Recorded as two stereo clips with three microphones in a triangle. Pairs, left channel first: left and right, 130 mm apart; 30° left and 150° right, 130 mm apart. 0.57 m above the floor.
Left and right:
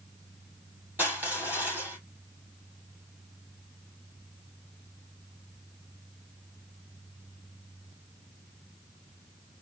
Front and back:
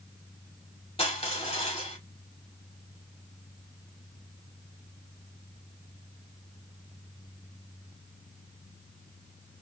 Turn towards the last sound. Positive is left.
turn(degrees=-15)